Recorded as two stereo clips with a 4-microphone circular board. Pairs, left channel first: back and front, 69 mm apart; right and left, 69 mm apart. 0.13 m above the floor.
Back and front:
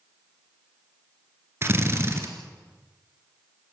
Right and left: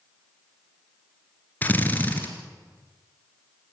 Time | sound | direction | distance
1.6 | a drill | 35° right | 2.5 m